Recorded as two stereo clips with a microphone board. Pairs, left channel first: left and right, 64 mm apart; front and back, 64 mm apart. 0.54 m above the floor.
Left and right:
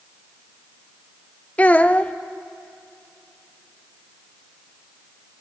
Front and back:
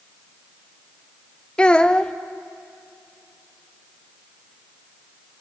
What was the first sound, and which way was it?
A child speaking, 55° left.